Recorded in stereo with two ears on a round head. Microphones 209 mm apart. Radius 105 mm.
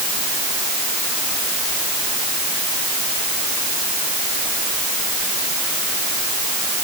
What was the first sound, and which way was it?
Only background noise.